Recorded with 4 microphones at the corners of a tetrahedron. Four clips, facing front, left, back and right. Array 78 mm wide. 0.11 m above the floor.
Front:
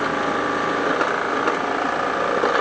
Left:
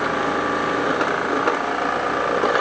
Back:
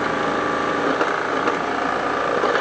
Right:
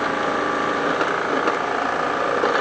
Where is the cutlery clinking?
No cutlery clinking in this recording.